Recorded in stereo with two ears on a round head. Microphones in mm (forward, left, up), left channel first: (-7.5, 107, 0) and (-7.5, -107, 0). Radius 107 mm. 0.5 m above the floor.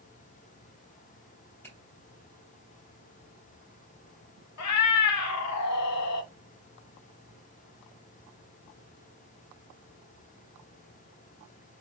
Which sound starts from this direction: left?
A cat meowing, at 4.6 s.